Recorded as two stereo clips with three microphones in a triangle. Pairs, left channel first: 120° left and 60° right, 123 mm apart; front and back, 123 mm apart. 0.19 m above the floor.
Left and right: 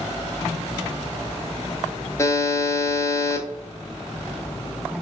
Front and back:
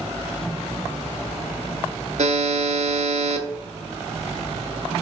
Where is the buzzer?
Straight behind, 0.6 m.